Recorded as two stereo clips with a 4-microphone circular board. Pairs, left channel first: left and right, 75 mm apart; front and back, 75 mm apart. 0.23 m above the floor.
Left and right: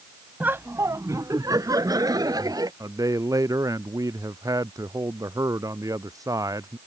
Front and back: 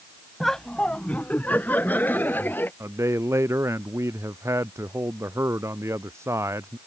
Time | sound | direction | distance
0.4 | laughter | 85° right | ?
2.8 | a man speaking | 130° right | ?